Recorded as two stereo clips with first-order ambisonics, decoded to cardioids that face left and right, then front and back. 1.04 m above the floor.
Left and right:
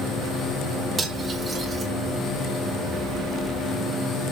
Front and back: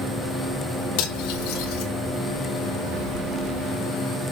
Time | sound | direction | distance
1.0 | cutlery clinking | 15° right | 2.5 m